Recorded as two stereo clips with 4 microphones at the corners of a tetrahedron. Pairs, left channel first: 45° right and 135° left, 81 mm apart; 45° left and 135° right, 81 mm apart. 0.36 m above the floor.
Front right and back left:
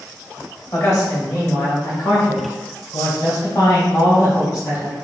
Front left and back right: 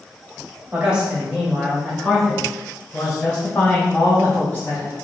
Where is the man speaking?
65° right, 1.7 m; by 4.9 s straight ahead, 3 m.